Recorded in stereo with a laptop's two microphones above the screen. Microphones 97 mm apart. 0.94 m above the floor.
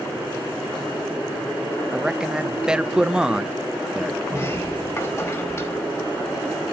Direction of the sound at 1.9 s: 10° right (ahead or behind).